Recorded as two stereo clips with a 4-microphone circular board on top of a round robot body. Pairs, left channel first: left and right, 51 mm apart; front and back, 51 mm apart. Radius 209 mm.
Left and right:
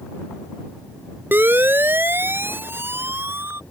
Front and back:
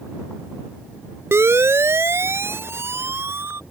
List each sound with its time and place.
1.3 s a siren: 140° right; by 3.6 s 135° right